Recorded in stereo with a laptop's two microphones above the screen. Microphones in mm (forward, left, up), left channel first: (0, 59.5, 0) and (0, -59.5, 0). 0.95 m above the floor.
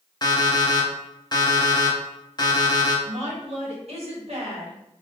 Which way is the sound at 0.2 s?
35° left (ahead or behind).